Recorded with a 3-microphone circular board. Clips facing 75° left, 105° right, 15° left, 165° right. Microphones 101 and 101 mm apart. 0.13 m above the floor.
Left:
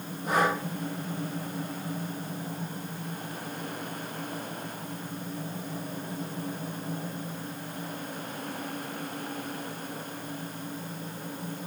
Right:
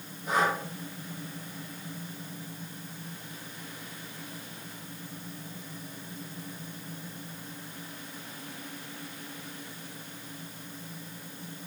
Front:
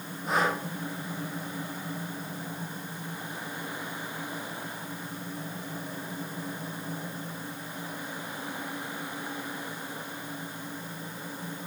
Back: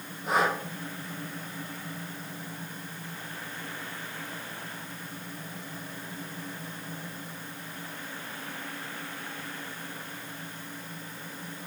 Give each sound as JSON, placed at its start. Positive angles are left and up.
{"t": 0.3, "sound": "breathing", "azimuth_deg": 105, "distance_m": 2.0}